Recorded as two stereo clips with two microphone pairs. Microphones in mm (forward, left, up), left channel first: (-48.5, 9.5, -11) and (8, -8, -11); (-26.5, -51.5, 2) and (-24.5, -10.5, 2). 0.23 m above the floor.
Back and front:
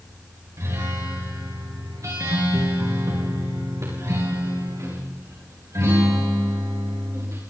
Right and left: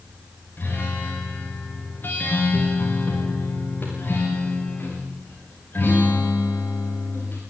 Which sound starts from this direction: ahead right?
A guitar, at 0.6 s.